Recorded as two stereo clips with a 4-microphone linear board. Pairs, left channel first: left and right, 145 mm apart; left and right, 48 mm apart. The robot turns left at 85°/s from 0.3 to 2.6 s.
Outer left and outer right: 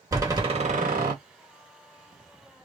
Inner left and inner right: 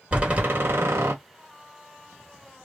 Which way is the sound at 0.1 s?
25° right.